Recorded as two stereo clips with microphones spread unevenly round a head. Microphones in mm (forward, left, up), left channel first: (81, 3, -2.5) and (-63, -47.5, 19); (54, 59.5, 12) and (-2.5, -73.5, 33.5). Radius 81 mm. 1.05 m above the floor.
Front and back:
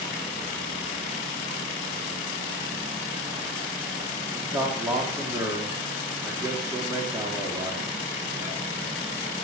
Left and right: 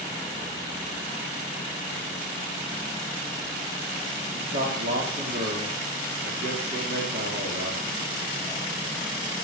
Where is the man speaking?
85° right, 3 m.